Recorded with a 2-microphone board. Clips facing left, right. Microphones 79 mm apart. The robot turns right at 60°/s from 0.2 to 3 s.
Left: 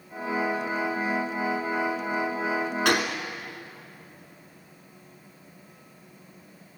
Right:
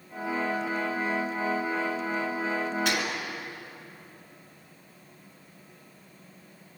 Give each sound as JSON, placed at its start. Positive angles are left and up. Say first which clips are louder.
{"t": 2.9, "sound": "a gunshot", "louder": "left 5 dB", "side_deg": 75, "distance_m": 2.5}